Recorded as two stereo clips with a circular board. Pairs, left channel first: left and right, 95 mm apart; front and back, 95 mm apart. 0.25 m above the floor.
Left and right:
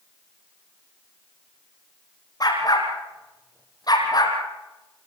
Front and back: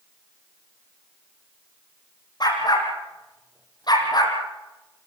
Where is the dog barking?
40° left, 6 m; by 4.4 s 45° left, 4.5 m.